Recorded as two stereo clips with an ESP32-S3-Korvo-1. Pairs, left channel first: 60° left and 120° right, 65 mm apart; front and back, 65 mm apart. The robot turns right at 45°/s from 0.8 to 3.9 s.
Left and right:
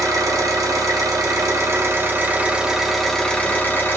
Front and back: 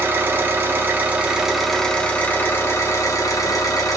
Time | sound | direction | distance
0.0 | an engine running | 125° right | 0.9 m